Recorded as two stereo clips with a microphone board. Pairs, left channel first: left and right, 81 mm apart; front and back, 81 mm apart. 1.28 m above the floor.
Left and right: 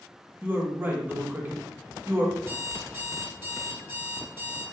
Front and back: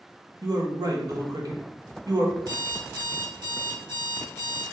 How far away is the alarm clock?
About 1.6 m.